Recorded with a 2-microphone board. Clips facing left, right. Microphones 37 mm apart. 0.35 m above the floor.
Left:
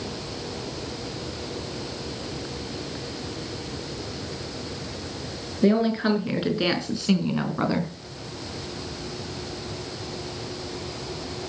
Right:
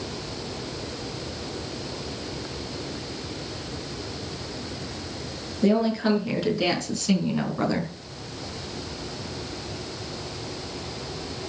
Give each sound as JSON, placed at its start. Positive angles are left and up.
{"t": 5.6, "sound": "a woman speaking", "side_deg": 25, "distance_m": 5.0}